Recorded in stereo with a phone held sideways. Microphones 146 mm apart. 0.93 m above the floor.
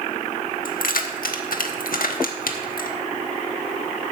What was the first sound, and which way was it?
Keys jangling, 75° left (ahead or behind).